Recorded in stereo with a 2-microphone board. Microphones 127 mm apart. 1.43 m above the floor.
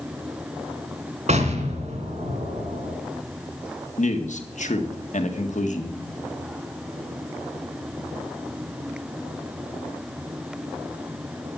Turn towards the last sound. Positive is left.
turn(degrees=75)  # may be behind; listen again after turning